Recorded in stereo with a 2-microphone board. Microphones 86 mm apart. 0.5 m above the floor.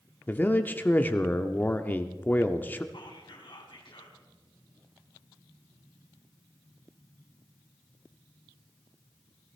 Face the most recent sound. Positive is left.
turn(degrees=65)  # may be behind; listen again after turning